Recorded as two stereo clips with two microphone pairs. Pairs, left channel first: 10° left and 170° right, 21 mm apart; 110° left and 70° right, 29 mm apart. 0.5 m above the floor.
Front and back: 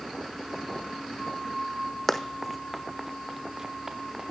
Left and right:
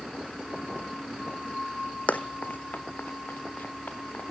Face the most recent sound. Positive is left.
turn(degrees=130)